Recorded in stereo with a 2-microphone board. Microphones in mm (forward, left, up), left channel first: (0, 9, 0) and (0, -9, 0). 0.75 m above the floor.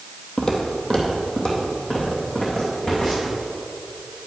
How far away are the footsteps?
About 1.4 m.